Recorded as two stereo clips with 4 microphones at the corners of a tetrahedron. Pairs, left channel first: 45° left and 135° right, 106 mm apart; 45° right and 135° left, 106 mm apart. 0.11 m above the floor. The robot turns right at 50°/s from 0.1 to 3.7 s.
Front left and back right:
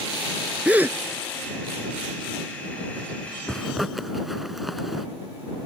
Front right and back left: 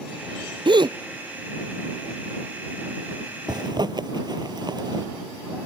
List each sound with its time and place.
0.7 s a gasp: 150° left; by 1.0 s 165° left
3.5 s a zipper: 125° left; by 5.1 s 135° left